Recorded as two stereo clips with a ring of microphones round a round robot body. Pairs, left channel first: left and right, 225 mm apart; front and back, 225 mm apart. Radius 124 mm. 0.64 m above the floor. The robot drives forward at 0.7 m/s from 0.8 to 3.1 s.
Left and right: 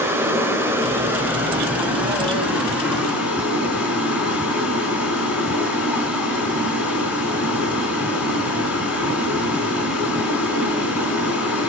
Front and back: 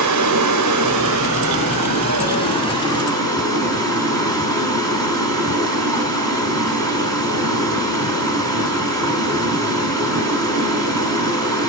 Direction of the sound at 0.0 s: 170° right.